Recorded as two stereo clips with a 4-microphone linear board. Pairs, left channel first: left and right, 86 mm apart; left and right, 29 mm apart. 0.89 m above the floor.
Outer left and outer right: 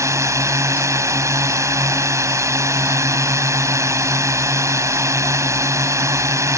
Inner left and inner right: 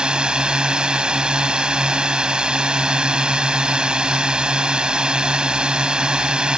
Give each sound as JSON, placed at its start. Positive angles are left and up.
{"t": 0.0, "sound": "a drone", "side_deg": -35}